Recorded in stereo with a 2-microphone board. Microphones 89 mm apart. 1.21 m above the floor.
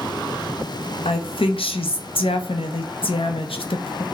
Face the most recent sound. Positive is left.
turn(degrees=85)